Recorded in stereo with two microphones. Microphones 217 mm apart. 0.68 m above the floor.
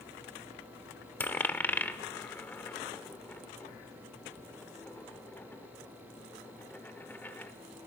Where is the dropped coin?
10° left (ahead or behind), 0.8 m.